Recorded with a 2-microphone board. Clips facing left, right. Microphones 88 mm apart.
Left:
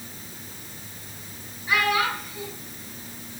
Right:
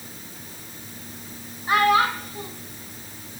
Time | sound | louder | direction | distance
1.7 | a child speaking | right 5 dB | 50° right (ahead or behind) | 2 m